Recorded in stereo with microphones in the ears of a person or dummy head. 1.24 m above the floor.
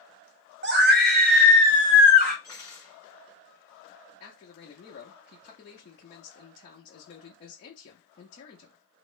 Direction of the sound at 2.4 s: 15° left (ahead or behind).